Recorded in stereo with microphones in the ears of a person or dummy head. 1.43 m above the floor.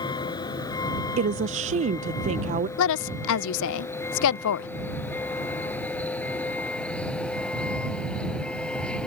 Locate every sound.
0.0 s a vehicle: 25° left (ahead or behind); by 9.1 s 5° left (ahead or behind)
1.2 s a woman speaking: 30° right (ahead or behind)
2.8 s a woman speaking: 75° left (ahead or behind)